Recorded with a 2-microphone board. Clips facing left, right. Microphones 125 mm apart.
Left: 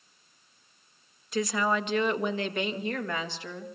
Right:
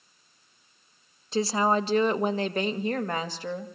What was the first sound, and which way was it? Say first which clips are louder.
A woman speaking: right 3 dB; 30° right (ahead or behind).